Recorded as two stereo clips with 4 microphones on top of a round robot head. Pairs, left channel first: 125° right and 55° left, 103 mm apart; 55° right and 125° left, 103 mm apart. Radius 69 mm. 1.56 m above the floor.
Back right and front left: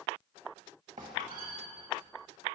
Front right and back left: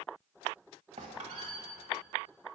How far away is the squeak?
About 1.1 m.